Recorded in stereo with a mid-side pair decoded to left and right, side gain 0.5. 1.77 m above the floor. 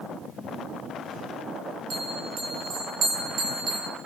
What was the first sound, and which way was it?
A bell, 50° right.